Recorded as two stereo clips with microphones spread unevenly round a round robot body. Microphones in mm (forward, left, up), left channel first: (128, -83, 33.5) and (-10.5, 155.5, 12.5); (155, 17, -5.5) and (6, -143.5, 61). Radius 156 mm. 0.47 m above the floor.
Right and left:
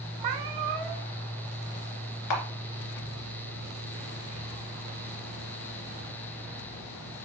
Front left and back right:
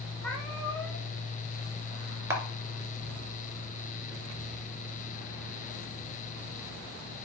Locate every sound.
0.2 s a cat meowing: 140° left, 0.9 m
2.3 s a camera shutter: 55° right, 2.5 m